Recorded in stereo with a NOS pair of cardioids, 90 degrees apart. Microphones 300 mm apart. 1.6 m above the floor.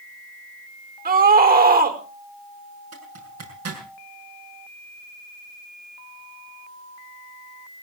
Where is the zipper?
60° right, 6.5 m.